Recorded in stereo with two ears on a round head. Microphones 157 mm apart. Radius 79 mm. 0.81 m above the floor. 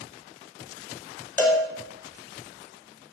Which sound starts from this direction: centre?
A cowbell, at 1.4 s.